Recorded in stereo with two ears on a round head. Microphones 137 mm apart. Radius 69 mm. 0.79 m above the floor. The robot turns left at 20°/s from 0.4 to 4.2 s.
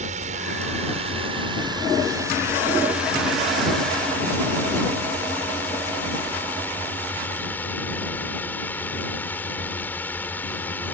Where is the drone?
120° right; by 10.9 s 165° left.